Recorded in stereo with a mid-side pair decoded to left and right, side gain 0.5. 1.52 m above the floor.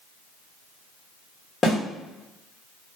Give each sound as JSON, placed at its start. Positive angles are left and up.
{"t": 1.6, "sound": "a snare drum", "azimuth_deg": 35, "distance_m": 1.2}